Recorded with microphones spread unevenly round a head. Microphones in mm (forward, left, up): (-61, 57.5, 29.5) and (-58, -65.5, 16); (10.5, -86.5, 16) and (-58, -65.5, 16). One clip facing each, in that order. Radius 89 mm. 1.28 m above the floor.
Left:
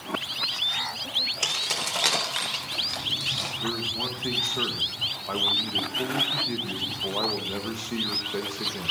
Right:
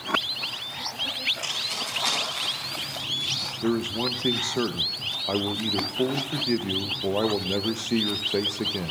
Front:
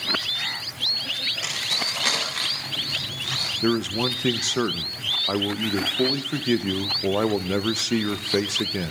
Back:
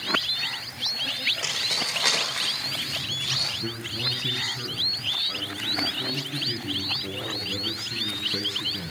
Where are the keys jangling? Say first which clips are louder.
Left 2 dB, front 1 dB; 95° left, 3 m; by 3.5 s 80° left, 5 m.